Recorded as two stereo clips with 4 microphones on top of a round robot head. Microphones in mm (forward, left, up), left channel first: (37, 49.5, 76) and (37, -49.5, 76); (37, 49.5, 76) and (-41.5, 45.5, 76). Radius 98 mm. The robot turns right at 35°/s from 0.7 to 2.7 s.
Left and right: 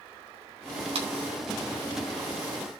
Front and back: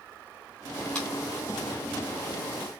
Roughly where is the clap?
Right.